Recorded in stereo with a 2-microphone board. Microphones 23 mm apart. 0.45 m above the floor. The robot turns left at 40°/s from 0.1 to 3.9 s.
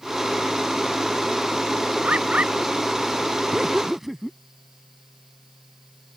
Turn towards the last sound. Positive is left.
turn(degrees=-10)  # may be behind; listen again after turning